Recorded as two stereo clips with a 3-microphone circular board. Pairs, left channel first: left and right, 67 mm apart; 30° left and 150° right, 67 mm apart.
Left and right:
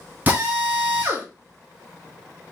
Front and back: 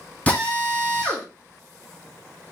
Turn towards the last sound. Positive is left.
turn(degrees=-35)